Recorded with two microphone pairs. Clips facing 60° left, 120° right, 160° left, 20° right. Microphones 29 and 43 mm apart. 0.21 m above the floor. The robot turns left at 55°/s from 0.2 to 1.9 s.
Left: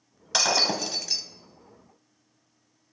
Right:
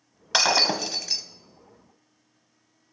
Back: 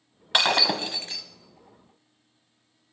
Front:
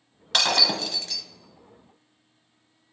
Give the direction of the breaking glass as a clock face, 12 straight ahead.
5 o'clock.